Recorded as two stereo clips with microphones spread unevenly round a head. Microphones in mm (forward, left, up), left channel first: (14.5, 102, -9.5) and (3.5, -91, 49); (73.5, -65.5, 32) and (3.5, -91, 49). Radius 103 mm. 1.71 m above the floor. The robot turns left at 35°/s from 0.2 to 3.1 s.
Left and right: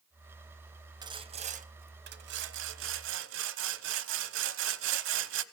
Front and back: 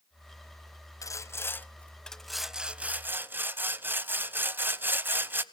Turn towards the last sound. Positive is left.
turn(degrees=-105)